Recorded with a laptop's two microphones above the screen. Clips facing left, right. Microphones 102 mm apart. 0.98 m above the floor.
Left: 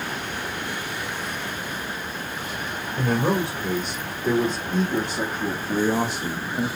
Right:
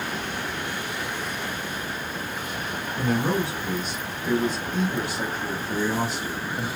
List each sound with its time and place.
3.0 s a man speaking: 50° left (ahead or behind), 3 m; by 6.7 s 20° left (ahead or behind), 1.0 m